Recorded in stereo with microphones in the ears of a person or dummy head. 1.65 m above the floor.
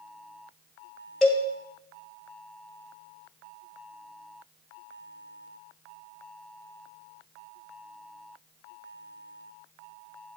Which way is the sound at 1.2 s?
Centre (ahead or behind).